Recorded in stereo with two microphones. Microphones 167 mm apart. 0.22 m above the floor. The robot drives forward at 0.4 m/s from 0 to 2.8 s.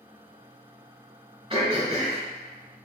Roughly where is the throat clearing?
Right.